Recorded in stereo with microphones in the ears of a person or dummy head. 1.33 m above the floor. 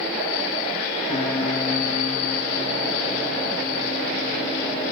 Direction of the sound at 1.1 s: 45° left (ahead or behind).